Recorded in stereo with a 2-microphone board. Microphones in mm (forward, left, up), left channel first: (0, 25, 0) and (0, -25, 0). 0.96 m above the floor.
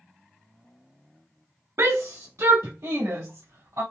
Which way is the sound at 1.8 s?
50° right (ahead or behind).